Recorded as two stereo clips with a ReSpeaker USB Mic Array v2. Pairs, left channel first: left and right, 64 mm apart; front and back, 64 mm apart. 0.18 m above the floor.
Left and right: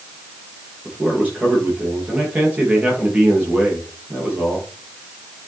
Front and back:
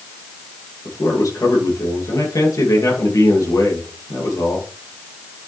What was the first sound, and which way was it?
A man speaking, 25° right.